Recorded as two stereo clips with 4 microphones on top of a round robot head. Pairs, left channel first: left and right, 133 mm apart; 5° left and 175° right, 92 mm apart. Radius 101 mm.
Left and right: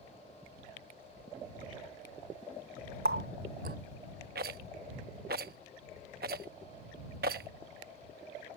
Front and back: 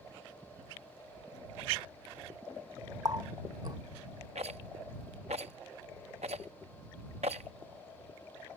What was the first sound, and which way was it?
A running tap, 110° right.